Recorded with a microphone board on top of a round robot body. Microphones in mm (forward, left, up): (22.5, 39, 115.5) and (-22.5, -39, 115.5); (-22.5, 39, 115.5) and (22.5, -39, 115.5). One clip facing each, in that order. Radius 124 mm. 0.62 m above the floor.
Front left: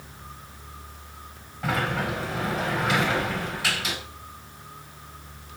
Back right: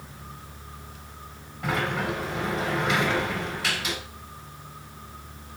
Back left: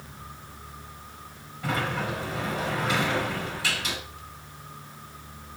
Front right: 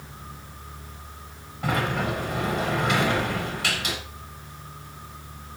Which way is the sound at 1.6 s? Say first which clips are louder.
Even, front right 3 dB; 30° right.